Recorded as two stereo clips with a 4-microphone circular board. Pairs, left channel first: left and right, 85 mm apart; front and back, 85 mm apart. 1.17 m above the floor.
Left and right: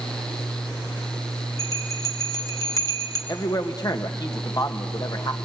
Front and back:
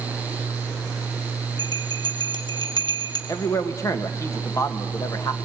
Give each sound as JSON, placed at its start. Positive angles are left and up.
{"t": 1.6, "sound": "a bell", "azimuth_deg": 40, "distance_m": 1.5}
{"t": 3.3, "sound": "a man speaking", "azimuth_deg": 50, "distance_m": 1.6}